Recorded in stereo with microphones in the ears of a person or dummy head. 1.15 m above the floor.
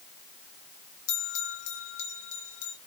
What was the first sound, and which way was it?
A bell, 80° left.